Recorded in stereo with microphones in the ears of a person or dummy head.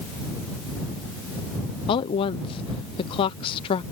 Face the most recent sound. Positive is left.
turn(degrees=30)  # may be behind; listen again after turning